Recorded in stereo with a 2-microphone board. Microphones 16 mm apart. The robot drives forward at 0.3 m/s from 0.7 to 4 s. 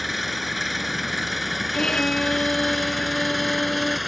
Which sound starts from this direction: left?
A violin, at 1.7 s.